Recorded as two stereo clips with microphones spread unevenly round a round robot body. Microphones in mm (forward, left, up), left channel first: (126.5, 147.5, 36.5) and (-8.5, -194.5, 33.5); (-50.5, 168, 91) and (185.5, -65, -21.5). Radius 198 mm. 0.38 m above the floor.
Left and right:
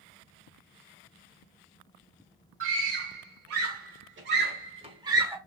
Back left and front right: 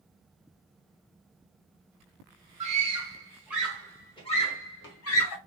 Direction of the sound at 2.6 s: 90° right.